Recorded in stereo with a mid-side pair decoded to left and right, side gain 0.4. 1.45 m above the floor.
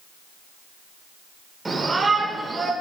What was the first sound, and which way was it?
A shout, 20° right.